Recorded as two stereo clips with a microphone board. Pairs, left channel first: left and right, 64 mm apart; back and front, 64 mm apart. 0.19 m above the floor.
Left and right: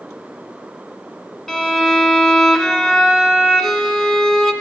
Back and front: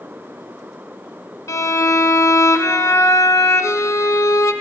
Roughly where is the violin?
Behind.